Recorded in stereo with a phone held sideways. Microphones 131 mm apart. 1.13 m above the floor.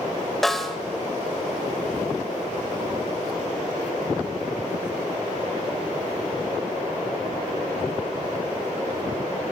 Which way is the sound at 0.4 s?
Centre (ahead or behind).